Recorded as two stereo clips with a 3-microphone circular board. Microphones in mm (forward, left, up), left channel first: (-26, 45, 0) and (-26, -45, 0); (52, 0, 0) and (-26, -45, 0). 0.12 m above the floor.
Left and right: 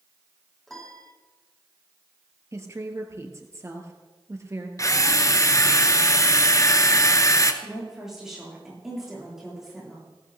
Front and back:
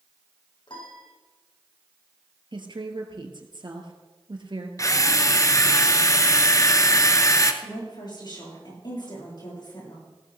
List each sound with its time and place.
0.7 s a piano: 5° left, 4 m
2.5 s a woman speaking: 145° right, 2 m
4.8 s a drill: 60° left, 0.9 m
7.6 s a woman speaking: 5° right, 7.5 m